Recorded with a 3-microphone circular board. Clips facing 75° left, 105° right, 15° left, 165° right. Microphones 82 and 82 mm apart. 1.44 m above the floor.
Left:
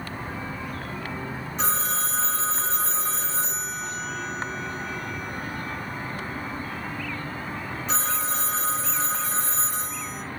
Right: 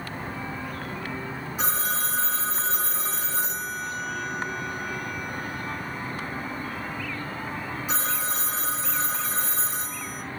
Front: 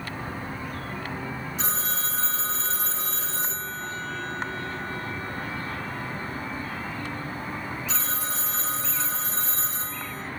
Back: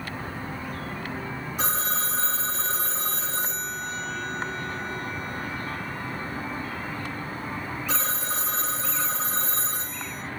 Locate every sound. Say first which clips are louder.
1.6 s a phone ringing: left 1 dB, back 5 dB; 175° left, 1.3 m